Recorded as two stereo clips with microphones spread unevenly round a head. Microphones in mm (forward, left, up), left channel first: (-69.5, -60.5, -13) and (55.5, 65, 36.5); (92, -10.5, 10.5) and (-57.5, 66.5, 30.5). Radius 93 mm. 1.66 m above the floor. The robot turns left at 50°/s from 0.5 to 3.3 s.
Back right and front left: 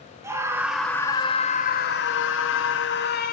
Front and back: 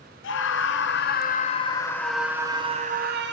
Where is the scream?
35° right, 1.0 m; by 3.3 s 175° right, 1.0 m.